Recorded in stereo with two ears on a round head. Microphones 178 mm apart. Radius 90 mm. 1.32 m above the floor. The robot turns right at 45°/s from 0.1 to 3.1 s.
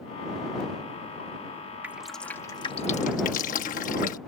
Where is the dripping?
10° right (ahead or behind); by 4.2 s 40° left (ahead or behind).